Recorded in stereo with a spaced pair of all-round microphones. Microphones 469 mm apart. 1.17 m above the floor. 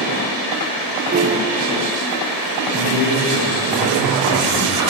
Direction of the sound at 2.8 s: 70° right (ahead or behind).